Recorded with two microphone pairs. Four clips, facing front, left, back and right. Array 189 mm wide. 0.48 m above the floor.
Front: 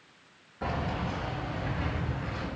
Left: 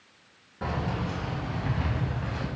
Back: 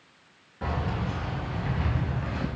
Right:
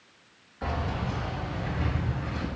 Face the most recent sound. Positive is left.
turn(degrees=155)